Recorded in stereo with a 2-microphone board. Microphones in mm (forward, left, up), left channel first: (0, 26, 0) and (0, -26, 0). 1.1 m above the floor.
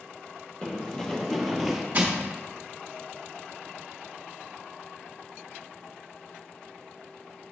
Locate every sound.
0.6 s running footsteps: 20° left (ahead or behind), 1.6 m; by 1.8 s 5° right (ahead or behind), 1.1 m
1.9 s crushing: 35° right (ahead or behind), 1.1 m